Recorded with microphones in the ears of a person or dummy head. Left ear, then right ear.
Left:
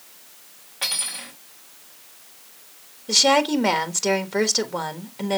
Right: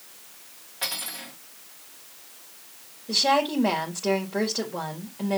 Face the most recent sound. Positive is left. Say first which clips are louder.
# left 4 dB
turn(degrees=70)  # may be behind; listen again after turning